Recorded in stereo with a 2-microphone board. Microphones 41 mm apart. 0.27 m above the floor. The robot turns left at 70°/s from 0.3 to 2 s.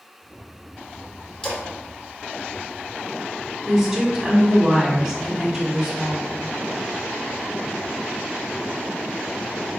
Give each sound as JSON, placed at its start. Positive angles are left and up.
{"t": 1.4, "sound": "a splash", "side_deg": 20, "distance_m": 1.2}
{"t": 3.7, "sound": "a woman speaking", "side_deg": -10, "distance_m": 1.4}